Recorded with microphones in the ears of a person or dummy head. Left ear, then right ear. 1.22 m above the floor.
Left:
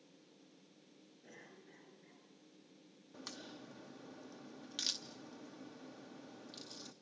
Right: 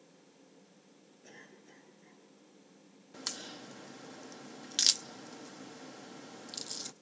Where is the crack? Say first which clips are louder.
Right 9 dB; 50° right (ahead or behind), 0.6 m.